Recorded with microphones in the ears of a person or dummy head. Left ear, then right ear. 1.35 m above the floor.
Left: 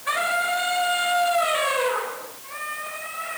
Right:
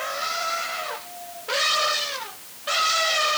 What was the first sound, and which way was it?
Only background noise.